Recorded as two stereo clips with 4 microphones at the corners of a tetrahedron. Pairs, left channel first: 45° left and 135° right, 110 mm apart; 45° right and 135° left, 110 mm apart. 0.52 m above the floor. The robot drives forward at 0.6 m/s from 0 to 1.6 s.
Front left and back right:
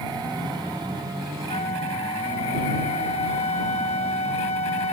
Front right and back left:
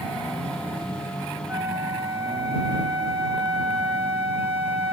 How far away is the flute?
About 5 m.